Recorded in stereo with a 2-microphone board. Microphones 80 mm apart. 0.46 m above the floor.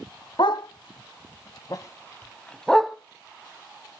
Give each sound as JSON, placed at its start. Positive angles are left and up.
{"t": 0.4, "sound": "a dog barking", "side_deg": 75, "distance_m": 0.9}